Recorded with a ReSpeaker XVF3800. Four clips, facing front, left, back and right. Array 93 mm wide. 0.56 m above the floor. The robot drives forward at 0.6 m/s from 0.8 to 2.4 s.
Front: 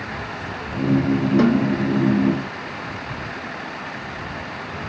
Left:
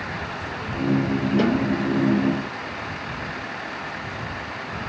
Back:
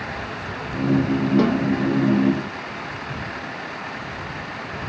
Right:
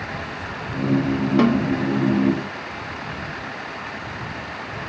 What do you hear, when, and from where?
1.4 s a snare drum: 80° right, 1.7 m; by 1.7 s 85° right, 1.7 m